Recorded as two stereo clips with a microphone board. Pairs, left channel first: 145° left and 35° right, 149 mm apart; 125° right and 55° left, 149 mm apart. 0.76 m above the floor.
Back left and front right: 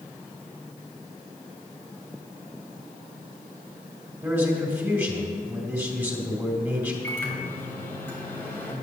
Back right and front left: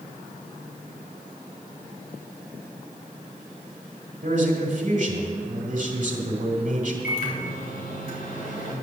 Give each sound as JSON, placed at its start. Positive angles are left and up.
{"t": 4.2, "sound": "a man speaking", "azimuth_deg": 40, "distance_m": 2.0}
{"t": 7.0, "sound": "a microwave", "azimuth_deg": -140, "distance_m": 3.0}